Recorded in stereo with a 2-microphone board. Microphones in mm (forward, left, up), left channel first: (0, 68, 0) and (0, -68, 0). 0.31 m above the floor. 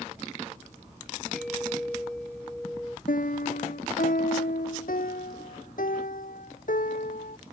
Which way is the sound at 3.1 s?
80° left.